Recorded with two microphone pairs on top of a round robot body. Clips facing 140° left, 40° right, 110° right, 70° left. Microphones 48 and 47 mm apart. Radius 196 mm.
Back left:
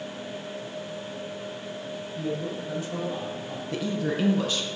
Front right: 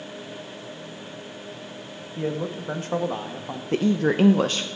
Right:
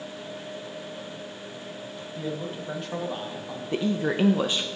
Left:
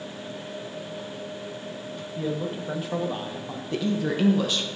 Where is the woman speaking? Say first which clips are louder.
Front right 7 dB, right 1 dB; 50° right, 0.6 m.